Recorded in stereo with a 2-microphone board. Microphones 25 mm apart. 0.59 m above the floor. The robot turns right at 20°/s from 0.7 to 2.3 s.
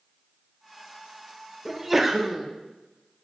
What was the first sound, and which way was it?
A sneeze, 5° right (ahead or behind).